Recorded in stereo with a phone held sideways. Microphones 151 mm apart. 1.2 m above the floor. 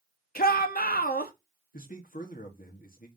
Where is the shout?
80° left, 1.5 m.